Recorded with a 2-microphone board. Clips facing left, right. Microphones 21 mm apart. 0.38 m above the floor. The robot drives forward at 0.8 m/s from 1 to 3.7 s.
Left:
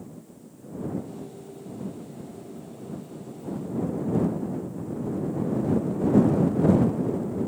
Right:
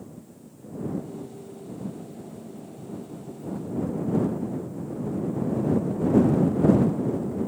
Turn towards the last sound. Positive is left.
No sound to turn to.